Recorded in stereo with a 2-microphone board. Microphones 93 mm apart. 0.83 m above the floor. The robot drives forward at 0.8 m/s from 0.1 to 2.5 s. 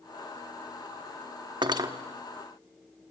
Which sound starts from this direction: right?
Cutlery clinking, at 1.6 s.